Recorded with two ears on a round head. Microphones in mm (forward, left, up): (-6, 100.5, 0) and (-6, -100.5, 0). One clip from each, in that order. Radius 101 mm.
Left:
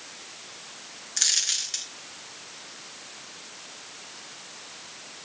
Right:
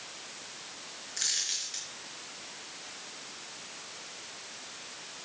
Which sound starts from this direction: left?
A dropped coin, at 1.2 s.